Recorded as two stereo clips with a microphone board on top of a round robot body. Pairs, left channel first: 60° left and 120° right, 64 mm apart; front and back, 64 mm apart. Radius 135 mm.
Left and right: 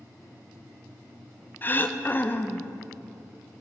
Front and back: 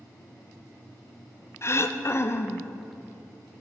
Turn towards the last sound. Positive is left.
turn(degrees=15)